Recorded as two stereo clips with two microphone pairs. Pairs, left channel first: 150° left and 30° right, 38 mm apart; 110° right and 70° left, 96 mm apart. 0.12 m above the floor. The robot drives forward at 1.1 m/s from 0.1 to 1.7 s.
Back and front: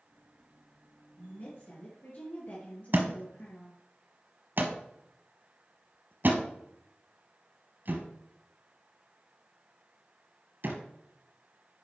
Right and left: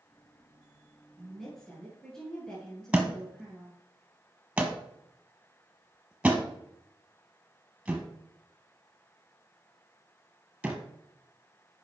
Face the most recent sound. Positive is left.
turn(degrees=-5)